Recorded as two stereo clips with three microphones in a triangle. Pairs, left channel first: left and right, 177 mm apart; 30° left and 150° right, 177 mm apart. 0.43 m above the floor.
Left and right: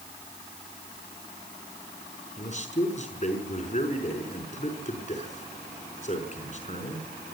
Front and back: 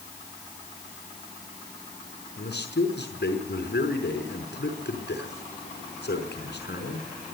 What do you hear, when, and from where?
2.4 s a man speaking: 45° left, 5 m